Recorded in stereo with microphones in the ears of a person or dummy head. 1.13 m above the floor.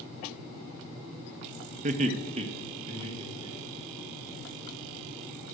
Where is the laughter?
35° right (ahead or behind), 0.6 m; by 4.0 s 25° right (ahead or behind), 2 m.